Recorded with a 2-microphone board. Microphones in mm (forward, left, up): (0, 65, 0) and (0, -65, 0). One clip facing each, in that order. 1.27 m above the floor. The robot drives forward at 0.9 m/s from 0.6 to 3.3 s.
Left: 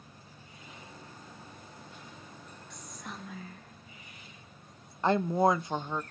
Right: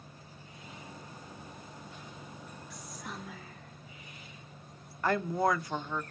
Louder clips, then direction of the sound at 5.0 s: Left 3 dB; 25° left (ahead or behind).